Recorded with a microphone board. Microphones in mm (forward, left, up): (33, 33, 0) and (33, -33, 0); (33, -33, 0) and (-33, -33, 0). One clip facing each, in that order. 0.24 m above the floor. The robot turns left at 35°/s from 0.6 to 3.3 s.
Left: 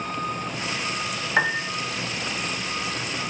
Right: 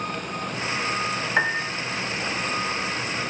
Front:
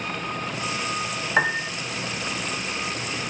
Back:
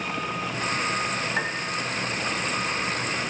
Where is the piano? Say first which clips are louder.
Left 1 dB, front 6 dB; 5° left, 1.0 m; by 1.7 s 5° right, 1.0 m.